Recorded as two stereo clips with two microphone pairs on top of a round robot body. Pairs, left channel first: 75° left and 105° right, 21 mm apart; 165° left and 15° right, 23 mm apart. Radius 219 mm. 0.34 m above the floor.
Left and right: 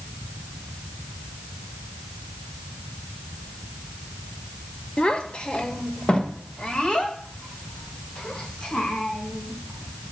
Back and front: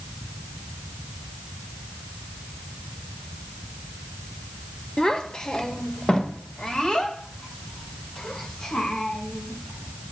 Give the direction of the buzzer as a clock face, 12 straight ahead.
No buzzer in this recording.